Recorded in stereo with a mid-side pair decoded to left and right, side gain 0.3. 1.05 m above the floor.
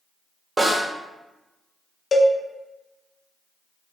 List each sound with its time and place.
0.6 s a snare drum: 35° right, 1.7 m
2.1 s a cowbell: 50° left, 0.6 m